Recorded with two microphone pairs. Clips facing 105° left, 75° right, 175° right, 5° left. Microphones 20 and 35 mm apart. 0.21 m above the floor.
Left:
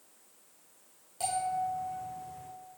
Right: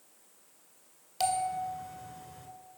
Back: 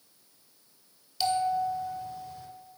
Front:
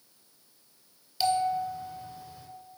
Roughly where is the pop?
No pop in this recording.